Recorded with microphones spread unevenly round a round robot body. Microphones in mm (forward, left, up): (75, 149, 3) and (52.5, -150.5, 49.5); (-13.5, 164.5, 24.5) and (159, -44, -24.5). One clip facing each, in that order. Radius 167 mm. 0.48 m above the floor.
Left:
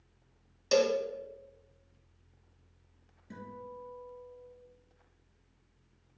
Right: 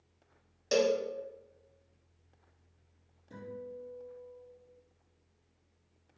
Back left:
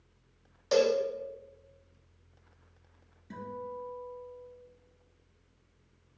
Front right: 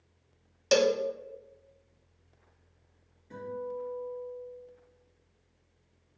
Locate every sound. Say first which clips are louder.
0.7 s a cowbell: left 1 dB, even; straight ahead, 0.5 m
3.3 s a guitar: right 3 dB, front right 4 dB; 100° left, 2 m